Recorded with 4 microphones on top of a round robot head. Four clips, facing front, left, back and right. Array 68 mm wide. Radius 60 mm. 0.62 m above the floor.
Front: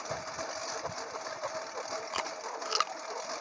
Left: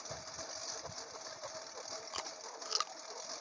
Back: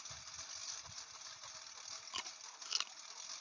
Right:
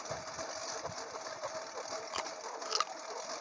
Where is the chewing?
5° right.